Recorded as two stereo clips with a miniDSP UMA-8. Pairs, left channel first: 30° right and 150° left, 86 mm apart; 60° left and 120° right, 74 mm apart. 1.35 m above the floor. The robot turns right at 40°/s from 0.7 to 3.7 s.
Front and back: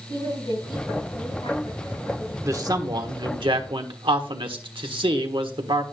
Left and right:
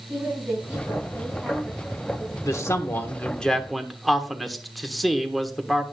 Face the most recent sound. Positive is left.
turn(degrees=150)